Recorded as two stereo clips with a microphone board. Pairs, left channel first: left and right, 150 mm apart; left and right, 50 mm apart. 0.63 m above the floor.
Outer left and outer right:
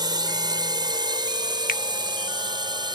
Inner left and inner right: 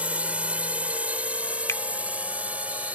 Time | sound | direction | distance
0.0 | a drone | 30° right (ahead or behind) | ?
1.7 | a finger snap | 75° left (ahead or behind) | ?